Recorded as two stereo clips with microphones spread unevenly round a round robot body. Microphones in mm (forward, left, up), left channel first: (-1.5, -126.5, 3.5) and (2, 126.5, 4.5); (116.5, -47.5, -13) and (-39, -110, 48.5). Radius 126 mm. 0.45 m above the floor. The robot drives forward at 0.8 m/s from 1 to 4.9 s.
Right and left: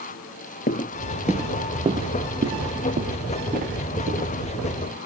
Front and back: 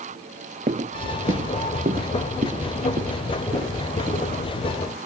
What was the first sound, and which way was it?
Footsteps, 145° right.